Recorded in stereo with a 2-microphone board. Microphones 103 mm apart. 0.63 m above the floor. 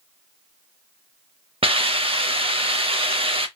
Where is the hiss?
60° right (ahead or behind), 0.7 m.